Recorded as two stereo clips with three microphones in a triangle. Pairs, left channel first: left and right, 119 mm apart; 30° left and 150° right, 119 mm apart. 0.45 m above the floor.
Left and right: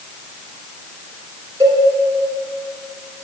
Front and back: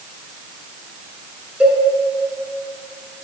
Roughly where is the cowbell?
Right.